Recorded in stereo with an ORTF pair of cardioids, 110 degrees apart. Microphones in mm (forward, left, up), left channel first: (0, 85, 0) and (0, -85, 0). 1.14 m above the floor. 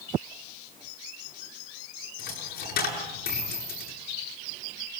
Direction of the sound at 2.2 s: 70° left.